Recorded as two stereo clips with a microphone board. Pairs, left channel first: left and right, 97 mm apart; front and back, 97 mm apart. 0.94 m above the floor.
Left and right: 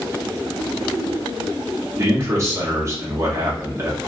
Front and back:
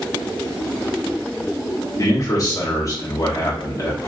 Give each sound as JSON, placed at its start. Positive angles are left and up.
{"t": 2.0, "sound": "a man speaking", "azimuth_deg": -40, "distance_m": 1.2}